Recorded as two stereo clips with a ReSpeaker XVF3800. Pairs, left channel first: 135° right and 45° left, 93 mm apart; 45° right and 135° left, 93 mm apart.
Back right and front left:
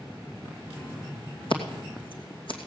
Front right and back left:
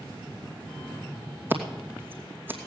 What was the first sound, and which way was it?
Scissors, 155° right.